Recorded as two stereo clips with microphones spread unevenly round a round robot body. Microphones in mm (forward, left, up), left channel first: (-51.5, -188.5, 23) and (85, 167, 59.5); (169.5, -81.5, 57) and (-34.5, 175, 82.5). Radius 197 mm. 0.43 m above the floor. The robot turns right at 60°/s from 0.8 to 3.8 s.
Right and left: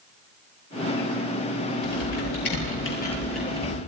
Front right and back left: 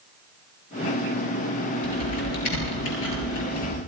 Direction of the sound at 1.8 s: 115° right.